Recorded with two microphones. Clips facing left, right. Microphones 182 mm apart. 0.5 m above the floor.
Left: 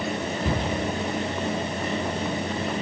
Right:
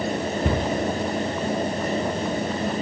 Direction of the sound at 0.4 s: 60° right (ahead or behind).